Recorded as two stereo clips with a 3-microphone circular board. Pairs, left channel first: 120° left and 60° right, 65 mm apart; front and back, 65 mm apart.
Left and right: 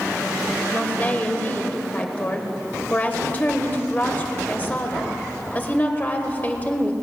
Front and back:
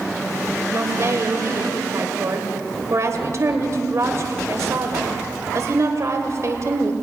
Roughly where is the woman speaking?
Behind.